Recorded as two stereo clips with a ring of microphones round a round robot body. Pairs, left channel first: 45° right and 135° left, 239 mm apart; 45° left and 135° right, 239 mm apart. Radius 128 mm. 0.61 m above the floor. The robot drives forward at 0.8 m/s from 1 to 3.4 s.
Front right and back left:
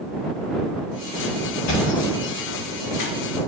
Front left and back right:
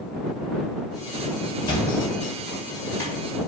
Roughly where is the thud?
Ahead right.